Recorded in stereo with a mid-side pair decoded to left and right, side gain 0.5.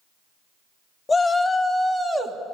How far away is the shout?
About 2 m.